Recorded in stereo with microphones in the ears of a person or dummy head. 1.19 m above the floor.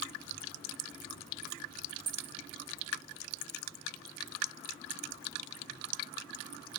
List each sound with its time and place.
2.1 s a dropped coin: 10° right (ahead or behind), 0.7 m